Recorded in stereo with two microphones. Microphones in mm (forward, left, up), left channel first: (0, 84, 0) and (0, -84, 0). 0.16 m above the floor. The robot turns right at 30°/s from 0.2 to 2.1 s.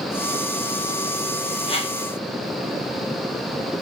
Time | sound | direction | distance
1.7 | a whoosh | 35° left (ahead or behind) | 1.4 m